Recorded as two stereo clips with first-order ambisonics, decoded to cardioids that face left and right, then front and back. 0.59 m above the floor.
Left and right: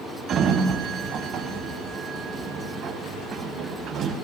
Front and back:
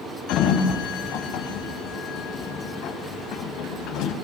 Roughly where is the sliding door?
Ahead right.